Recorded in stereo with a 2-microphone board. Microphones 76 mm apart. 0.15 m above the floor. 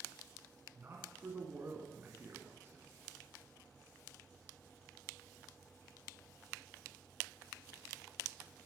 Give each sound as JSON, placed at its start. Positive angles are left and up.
{"t": 0.8, "sound": "a man speaking", "side_deg": -30, "distance_m": 1.9}